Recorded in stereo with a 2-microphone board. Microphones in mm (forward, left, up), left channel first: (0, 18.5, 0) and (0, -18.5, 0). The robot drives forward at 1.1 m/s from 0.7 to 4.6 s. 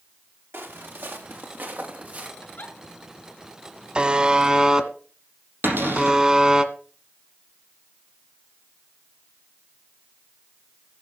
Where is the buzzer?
25° right (ahead or behind), 1.0 m; by 6.6 s 20° right (ahead or behind), 1.3 m.